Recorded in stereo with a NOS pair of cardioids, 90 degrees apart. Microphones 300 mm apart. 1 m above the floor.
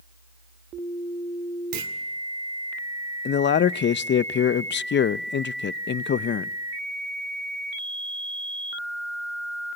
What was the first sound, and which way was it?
A clunk, 70° right.